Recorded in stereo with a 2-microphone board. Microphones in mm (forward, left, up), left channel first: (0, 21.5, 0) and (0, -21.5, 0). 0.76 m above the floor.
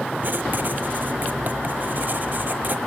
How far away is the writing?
About 1.1 m.